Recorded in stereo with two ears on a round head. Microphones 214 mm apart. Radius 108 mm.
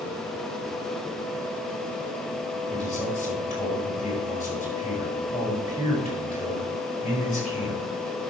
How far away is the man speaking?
About 5 m.